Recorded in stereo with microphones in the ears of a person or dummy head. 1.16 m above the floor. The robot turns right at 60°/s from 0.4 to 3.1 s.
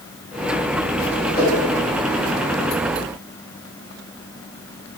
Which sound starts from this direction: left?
A whoosh, at 1.3 s.